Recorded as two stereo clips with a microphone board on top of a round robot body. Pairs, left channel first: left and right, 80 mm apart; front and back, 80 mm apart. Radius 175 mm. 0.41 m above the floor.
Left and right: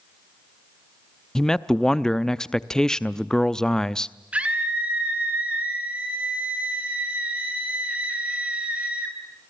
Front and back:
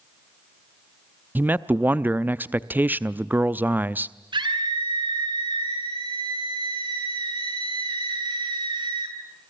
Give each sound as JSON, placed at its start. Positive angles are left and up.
{"t": 1.4, "sound": "a man speaking", "azimuth_deg": 160, "distance_m": 0.8}
{"t": 4.3, "sound": "a scream", "azimuth_deg": -165, "distance_m": 8.0}